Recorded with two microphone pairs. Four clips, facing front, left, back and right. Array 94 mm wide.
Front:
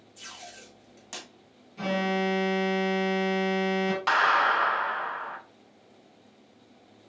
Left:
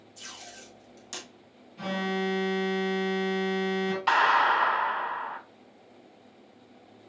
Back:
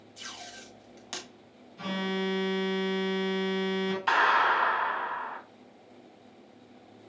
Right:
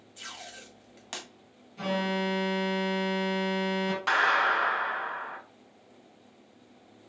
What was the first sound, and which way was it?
Tape being pulled, 100° right.